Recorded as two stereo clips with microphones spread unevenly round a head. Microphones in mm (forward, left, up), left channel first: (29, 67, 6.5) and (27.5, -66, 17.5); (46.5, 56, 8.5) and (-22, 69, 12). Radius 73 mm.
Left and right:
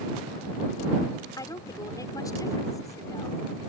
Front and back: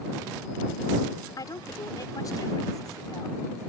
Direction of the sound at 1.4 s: 25° left.